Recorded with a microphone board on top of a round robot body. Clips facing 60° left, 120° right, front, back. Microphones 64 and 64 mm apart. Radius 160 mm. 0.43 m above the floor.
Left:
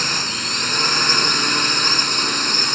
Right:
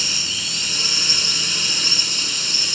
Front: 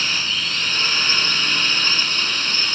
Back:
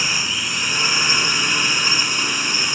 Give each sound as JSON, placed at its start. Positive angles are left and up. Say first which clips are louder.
{"t": 0.0, "sound": "a drone", "louder": "left 5 dB, back 1 dB", "azimuth_deg": 105}